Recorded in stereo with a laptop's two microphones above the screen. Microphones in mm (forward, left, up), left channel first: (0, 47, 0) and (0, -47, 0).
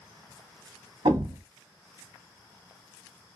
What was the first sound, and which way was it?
A thud, 65° right (ahead or behind).